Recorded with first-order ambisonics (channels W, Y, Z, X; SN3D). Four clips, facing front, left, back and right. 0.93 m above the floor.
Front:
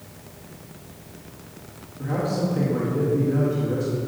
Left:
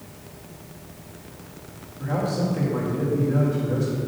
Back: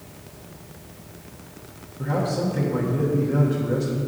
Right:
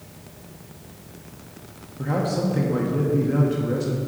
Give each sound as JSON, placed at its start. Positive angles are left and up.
{"t": 2.0, "sound": "a man speaking", "azimuth_deg": -100, "distance_m": 1.2}